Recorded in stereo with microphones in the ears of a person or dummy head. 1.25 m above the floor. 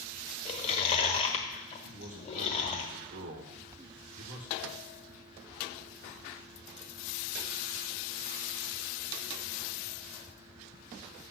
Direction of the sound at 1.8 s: 40° right (ahead or behind).